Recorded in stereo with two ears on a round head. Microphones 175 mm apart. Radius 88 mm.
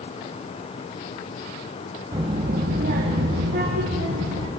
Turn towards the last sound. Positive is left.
turn(degrees=-70)  # may be behind; listen again after turning